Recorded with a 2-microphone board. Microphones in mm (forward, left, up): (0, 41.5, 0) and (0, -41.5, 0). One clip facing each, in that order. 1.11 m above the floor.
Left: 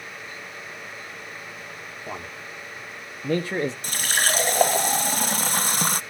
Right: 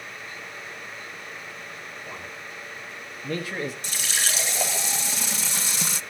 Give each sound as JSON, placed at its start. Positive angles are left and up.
{"t": 2.1, "sound": "a man speaking", "side_deg": 45, "distance_m": 2.5}
{"t": 3.8, "sound": "a running tap", "side_deg": 50, "distance_m": 0.5}